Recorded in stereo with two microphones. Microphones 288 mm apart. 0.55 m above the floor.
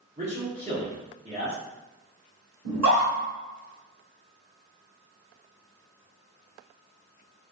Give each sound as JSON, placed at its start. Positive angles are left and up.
{"t": 0.2, "sound": "a man speaking", "side_deg": -25, "distance_m": 1.0}
{"t": 2.6, "sound": "a scream", "side_deg": -60, "distance_m": 1.3}